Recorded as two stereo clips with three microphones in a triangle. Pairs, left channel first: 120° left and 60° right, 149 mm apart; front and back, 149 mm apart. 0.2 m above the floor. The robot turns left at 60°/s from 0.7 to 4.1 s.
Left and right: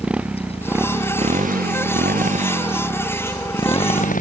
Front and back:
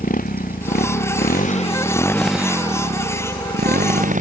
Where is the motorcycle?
25° left; by 4.2 s 145° left.